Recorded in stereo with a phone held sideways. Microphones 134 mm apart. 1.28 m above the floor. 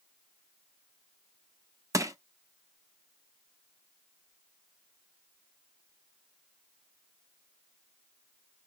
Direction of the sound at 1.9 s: 25° right (ahead or behind).